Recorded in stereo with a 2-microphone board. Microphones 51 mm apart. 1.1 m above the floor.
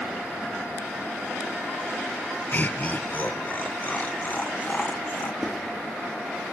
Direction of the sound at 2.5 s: 35° left (ahead or behind).